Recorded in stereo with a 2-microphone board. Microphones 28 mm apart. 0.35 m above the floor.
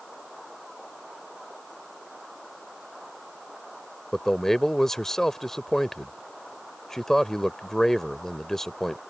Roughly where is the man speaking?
Centre.